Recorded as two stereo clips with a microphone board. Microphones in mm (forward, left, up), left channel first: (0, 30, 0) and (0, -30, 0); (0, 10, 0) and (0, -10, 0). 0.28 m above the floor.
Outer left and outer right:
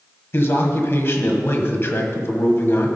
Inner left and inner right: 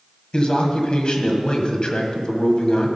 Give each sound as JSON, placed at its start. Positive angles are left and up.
{"t": 0.3, "sound": "a man speaking", "side_deg": 45, "distance_m": 1.4}